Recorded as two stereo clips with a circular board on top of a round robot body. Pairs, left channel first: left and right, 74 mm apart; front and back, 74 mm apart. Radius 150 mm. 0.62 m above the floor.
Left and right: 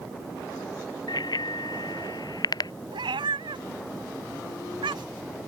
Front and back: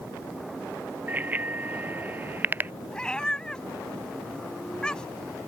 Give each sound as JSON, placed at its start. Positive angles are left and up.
{"t": 1.1, "sound": "a bicycle bell", "azimuth_deg": 115}
{"t": 2.9, "sound": "a cat meowing", "azimuth_deg": -80}